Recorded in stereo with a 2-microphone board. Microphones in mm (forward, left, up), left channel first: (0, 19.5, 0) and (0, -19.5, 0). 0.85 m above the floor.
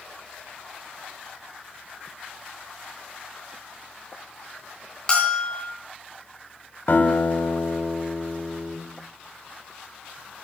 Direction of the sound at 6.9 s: 60° left (ahead or behind).